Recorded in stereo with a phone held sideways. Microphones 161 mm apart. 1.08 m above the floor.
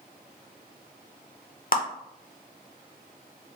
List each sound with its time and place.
1.7 s a clap: 65° left (ahead or behind), 0.7 m